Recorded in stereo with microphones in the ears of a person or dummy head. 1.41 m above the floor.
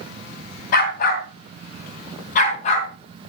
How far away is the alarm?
I don't hear an alarm.